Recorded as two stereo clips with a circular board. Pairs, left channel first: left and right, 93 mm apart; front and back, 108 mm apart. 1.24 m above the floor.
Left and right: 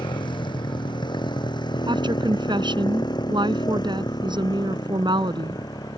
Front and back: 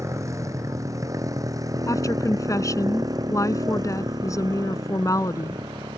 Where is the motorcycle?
120° left; by 6.0 s 130° left.